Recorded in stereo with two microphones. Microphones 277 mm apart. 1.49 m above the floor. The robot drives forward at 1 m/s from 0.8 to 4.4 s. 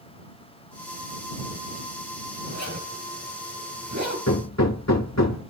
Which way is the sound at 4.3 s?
75° left (ahead or behind).